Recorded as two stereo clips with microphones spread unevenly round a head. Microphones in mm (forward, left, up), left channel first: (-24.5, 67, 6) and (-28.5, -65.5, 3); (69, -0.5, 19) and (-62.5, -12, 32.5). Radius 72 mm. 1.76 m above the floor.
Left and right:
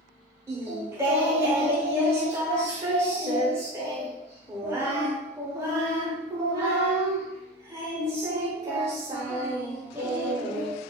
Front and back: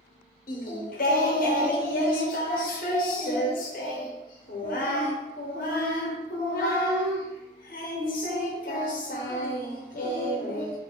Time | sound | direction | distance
0.5 | singing | 20° right | 0.8 m